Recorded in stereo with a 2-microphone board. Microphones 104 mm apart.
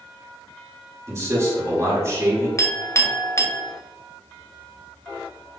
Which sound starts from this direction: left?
A clink, at 2.6 s.